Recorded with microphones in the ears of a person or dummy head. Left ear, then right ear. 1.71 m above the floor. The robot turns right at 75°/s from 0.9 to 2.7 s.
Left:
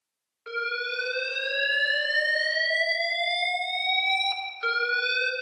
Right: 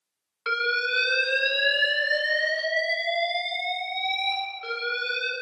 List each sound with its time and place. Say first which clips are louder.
0.5 s an alarm: right 5 dB; 70° right, 1.3 m; by 5.3 s 65° left, 1.3 m